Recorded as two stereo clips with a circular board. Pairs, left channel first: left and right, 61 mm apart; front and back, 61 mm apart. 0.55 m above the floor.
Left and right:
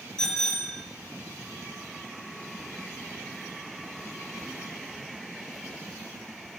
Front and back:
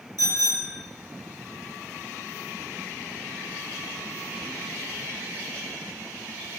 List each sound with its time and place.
0.2 s a bicycle bell: 10° left, 6 m